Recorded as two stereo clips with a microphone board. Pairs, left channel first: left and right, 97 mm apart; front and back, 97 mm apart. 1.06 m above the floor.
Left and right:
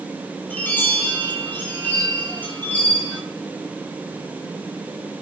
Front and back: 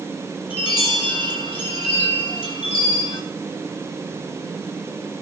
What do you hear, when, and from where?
0.5 s a chime: 20° left, 6 m